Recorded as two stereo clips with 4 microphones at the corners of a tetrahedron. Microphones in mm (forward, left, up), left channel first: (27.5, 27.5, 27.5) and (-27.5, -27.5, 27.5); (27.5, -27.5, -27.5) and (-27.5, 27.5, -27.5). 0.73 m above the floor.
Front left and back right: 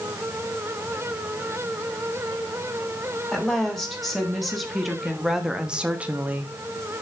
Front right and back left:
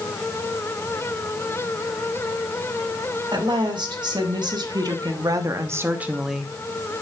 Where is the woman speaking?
130° left, 2.5 m; by 6.5 s 115° right, 0.7 m.